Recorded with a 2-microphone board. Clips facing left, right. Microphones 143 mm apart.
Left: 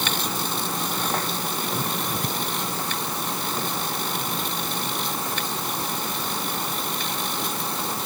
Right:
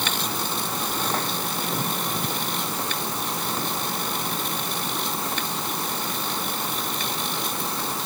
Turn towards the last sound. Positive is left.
No sound to turn to.